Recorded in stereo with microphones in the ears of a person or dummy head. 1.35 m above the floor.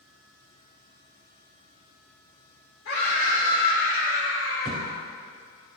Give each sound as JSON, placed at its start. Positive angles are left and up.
{"t": 2.9, "sound": "a scream", "side_deg": 75, "distance_m": 3.0}
{"t": 4.7, "sound": "a thud", "side_deg": 20, "distance_m": 1.8}